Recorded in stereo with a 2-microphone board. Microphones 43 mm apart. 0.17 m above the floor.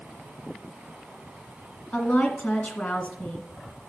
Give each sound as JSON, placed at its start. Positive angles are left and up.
{"t": 1.9, "sound": "a woman speaking", "side_deg": 35, "distance_m": 1.8}